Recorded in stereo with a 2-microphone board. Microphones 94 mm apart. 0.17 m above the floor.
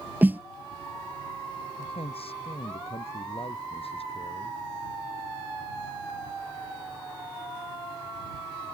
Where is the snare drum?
20° right (ahead or behind).